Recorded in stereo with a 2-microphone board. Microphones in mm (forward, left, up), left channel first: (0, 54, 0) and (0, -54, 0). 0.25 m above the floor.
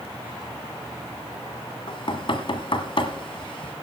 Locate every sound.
1.9 s knocking: 55° left (ahead or behind), 1.5 m